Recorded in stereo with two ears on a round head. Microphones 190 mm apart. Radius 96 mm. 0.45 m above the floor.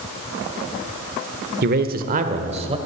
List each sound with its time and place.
1.6 s a man speaking: 50° right (ahead or behind), 1.2 m; by 2.8 s 25° right (ahead or behind), 1.8 m